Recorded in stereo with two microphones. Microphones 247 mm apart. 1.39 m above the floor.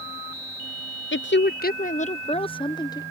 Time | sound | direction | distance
1.1 | a woman speaking | 50° left (ahead or behind) | ?